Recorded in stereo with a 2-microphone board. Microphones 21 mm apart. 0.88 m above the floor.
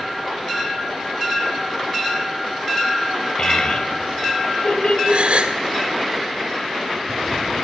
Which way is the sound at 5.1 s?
70° right (ahead or behind).